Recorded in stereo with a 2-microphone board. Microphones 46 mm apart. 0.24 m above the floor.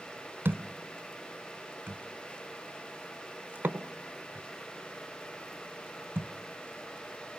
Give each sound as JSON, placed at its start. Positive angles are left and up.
{"t": 0.5, "sound": "a thud", "side_deg": -60, "distance_m": 1.1}